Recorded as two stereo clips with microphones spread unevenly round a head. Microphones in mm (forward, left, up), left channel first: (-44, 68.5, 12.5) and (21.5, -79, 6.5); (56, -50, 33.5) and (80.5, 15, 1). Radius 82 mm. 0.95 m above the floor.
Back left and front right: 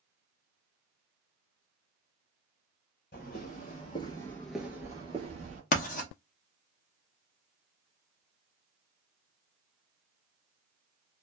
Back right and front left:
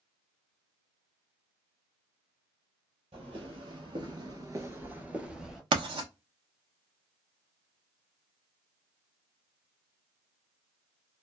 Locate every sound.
3.1 s footsteps: 105° left, 1.5 m; by 5.6 s 35° right, 1.3 m
5.7 s writing: 70° left, 0.8 m